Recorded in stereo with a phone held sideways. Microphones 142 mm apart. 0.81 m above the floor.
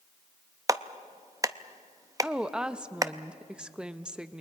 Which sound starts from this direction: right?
A clap, at 0.7 s.